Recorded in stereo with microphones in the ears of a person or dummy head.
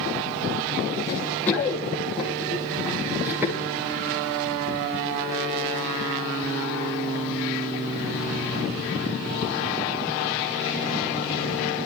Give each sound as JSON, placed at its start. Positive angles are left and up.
{"t": 1.1, "sound": "running footsteps", "side_deg": 15, "distance_m": 2.5}